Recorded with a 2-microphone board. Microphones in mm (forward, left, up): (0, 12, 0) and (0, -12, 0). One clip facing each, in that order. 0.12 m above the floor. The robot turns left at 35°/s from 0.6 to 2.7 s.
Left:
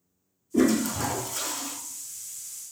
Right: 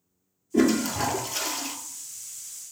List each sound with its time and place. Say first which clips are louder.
0.5 s a toilet flushing: right 1 dB; 20° right, 0.8 m; by 1.8 s 60° right, 0.8 m